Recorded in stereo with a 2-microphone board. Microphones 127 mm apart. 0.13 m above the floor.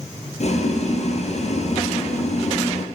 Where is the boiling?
60° left (ahead or behind), 2.5 m.